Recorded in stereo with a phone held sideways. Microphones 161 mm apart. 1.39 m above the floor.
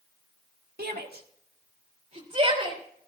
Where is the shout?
75° right (ahead or behind), 1.7 m; by 2.8 s 35° right (ahead or behind), 3.5 m.